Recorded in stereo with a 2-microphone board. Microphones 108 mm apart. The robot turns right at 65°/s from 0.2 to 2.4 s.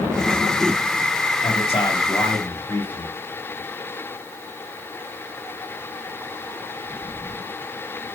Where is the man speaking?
100° left, 3 m; by 3.1 s 160° left, 3 m.